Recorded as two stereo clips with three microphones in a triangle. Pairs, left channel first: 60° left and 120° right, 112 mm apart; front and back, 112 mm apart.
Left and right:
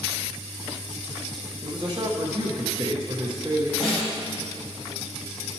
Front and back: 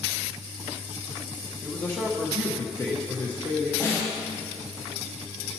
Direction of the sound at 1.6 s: 65° right.